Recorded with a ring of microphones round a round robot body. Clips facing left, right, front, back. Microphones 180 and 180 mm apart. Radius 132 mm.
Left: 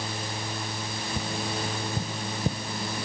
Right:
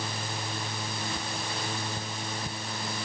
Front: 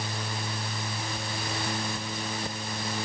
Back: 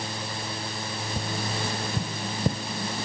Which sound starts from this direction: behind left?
Tapping, at 1.2 s.